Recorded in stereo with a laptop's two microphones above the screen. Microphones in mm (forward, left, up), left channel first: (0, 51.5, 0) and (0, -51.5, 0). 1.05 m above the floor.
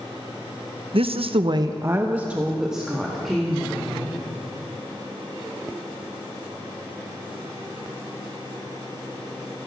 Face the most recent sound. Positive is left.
turn(degrees=5)  # may be behind; listen again after turning